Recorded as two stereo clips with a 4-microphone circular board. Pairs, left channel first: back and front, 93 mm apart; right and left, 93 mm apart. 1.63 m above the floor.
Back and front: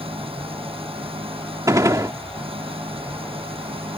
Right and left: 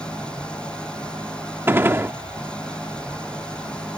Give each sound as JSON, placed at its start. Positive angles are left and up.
{"t": 0.0, "sound": "an engine running", "azimuth_deg": -10}
{"t": 1.7, "sound": "a gunshot", "azimuth_deg": 35}